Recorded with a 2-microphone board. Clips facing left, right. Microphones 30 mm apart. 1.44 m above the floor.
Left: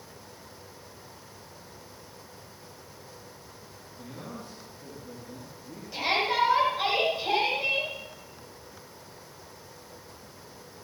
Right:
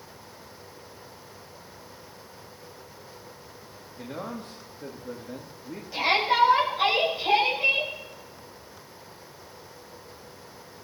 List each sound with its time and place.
4.0 s a man speaking: 60° right (ahead or behind), 2.5 m
5.9 s a shout: 5° right (ahead or behind), 9 m